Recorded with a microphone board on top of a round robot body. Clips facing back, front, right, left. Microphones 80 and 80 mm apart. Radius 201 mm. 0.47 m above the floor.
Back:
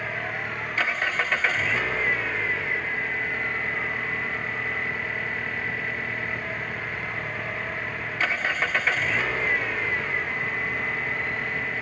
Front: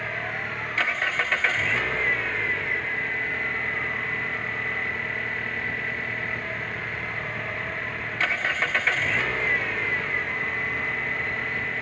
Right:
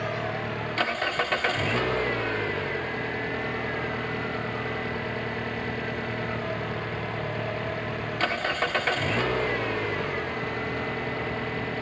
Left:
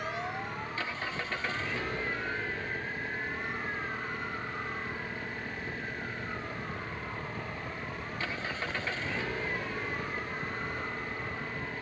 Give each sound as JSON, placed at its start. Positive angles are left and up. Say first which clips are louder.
{"t": 0.0, "sound": "an engine running", "louder": "even, right 6 dB", "azimuth_deg": -90}